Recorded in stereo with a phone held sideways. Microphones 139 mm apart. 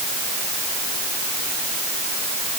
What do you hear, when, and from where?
Only background noise.